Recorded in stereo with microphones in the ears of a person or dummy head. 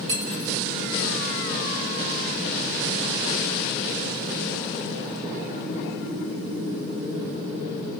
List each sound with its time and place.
0.1 s cutlery clinking: 50° right (ahead or behind), 1.6 m